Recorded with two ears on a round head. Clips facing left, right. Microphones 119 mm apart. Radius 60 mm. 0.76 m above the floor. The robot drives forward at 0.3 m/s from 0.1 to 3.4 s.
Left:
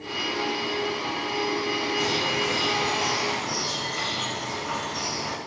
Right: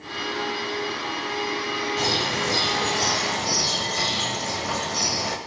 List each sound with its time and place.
2.0 s a bird: 35° right (ahead or behind), 1.8 m; by 5.4 s 45° right (ahead or behind), 1.5 m